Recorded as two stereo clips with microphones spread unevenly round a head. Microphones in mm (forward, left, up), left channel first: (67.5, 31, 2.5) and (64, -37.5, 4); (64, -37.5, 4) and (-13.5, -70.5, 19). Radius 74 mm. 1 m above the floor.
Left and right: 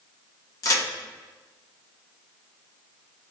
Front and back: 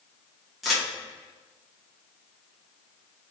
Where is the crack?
105° left, 0.8 m.